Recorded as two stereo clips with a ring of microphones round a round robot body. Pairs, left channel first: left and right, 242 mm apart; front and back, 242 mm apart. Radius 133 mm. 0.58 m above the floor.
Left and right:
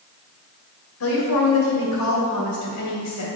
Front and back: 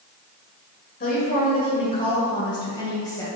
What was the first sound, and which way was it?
A woman speaking, 60° left.